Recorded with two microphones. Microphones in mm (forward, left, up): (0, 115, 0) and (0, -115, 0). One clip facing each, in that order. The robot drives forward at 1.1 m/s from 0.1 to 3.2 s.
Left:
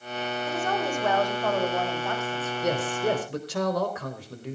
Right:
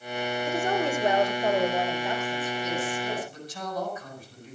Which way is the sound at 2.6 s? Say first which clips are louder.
Left 5 dB; 65° left (ahead or behind).